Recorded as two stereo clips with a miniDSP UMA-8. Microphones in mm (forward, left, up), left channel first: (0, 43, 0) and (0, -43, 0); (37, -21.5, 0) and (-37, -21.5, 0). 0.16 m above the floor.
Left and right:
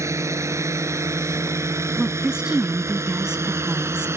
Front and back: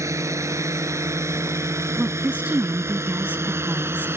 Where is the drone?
140° right; by 4.2 s 135° right.